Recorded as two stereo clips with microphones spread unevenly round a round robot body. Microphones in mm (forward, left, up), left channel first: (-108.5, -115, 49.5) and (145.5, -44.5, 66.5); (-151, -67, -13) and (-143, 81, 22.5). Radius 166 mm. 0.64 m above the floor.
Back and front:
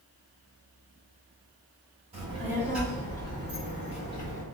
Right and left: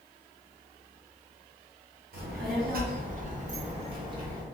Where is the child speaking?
85° left, 1.3 m; by 4.4 s 160° left, 1.4 m.